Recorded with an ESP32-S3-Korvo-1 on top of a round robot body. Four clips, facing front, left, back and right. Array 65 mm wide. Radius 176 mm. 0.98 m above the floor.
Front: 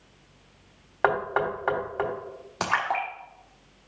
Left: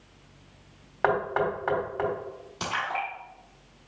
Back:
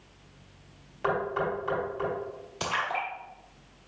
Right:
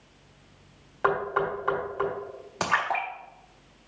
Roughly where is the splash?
Ahead right.